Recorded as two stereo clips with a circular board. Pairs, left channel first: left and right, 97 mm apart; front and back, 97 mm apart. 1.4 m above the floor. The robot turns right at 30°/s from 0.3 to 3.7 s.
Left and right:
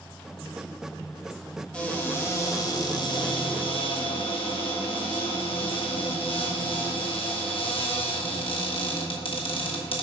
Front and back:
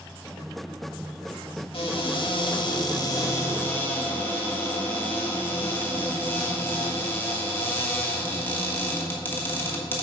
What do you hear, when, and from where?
1.7 s a cupboard door: 10° left, 1.4 m; by 10.0 s 70° left, 1.4 m